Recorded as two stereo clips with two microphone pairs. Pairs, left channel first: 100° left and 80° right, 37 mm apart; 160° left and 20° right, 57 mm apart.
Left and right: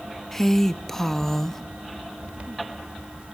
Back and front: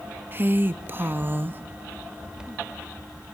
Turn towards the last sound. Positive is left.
turn(degrees=20)